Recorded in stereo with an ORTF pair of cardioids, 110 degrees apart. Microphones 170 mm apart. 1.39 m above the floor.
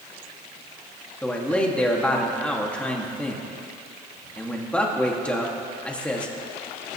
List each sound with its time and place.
1.2 s a man speaking: 5° left, 2.5 m